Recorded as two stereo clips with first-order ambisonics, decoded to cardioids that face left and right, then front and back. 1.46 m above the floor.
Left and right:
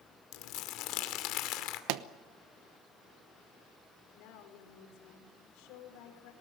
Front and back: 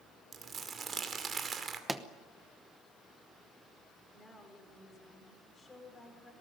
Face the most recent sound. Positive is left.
turn(degrees=75)